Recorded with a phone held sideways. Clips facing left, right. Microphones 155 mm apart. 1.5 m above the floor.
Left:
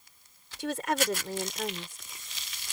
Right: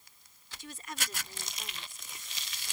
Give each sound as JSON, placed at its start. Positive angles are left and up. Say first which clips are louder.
{"t": 0.6, "sound": "a woman speaking", "louder": "left 15 dB", "side_deg": 85}